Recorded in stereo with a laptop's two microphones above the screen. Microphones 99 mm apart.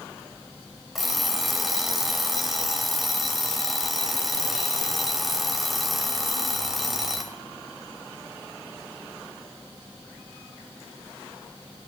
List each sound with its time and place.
0.9 s an alarm clock: centre (ahead or behind), 2.5 m